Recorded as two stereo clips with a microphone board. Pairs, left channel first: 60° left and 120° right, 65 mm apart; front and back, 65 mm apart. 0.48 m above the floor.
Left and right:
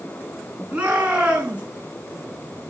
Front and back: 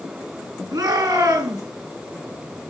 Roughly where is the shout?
Behind.